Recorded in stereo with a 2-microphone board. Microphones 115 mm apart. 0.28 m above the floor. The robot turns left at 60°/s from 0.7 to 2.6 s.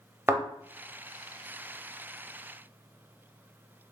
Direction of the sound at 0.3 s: 20° right (ahead or behind).